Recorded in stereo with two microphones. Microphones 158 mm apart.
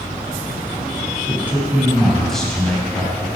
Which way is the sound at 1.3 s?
15° right (ahead or behind).